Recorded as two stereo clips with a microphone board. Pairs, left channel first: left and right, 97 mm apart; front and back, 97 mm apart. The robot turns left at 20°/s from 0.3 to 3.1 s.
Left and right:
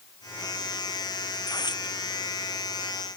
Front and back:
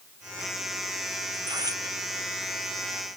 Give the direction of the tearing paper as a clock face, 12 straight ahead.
7 o'clock.